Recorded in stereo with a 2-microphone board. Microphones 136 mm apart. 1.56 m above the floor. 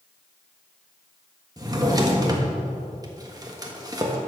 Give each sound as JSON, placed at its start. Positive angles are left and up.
{"t": 1.6, "sound": "a drawer", "side_deg": -30, "distance_m": 1.4}